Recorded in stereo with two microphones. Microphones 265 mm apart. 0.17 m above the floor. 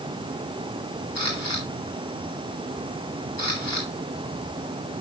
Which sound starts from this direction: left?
A camera shutter, at 1.1 s.